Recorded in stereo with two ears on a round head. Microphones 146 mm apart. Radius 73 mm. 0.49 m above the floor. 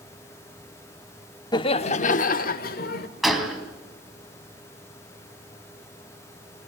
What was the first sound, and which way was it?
Laughter, 25° left (ahead or behind).